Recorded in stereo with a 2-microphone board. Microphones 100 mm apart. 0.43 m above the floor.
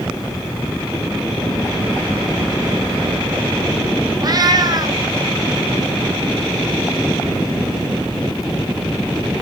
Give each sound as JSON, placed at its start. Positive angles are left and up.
{"t": 4.2, "sound": "a cat meowing", "side_deg": -40, "distance_m": 0.9}